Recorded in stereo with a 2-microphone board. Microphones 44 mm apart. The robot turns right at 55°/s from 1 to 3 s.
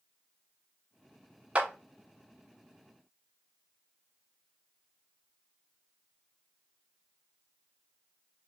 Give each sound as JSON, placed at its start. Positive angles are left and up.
{"t": 1.6, "sound": "a clap", "side_deg": -30, "distance_m": 0.7}